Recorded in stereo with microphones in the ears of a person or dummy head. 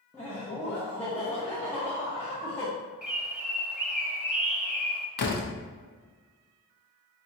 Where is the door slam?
55° left (ahead or behind), 0.7 m.